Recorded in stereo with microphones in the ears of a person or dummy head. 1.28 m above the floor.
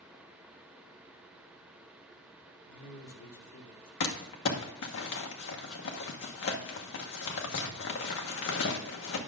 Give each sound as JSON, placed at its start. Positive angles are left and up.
{"t": 2.7, "sound": "a man speaking", "side_deg": 70, "distance_m": 2.5}
{"t": 4.0, "sound": "crumpling", "side_deg": 65, "distance_m": 1.2}